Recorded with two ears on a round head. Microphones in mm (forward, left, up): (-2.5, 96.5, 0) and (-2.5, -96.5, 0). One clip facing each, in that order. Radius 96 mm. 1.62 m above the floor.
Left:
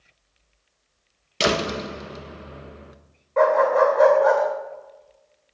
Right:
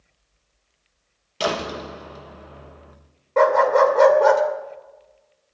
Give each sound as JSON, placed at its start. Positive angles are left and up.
{"t": 1.4, "sound": "a door slam", "side_deg": 30, "distance_m": 1.1}
{"t": 3.4, "sound": "a dog barking", "side_deg": -55, "distance_m": 2.5}